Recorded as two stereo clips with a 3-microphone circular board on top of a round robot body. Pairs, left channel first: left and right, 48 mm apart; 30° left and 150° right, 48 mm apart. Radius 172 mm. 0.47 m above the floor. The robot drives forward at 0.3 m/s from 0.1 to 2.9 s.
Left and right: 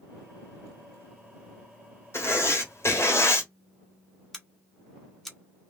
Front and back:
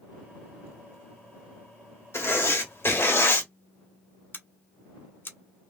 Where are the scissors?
10° left, 1.8 m.